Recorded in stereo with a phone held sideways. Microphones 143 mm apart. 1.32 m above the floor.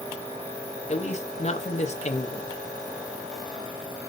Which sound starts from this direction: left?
A man speaking, at 0.9 s.